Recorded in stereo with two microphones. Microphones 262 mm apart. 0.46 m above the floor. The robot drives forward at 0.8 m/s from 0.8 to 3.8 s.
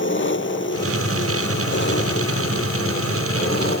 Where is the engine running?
45° left (ahead or behind); by 3.8 s 40° left (ahead or behind).